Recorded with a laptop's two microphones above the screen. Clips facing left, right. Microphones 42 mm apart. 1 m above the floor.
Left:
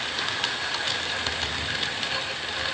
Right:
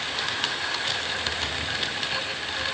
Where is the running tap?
I don't hear a running tap.